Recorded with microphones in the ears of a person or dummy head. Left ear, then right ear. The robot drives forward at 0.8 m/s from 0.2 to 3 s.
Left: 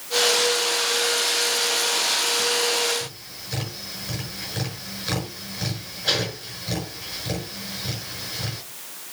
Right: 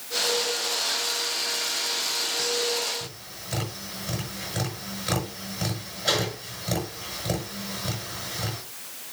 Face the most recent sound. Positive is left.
turn(degrees=0)  # may be behind; listen again after turning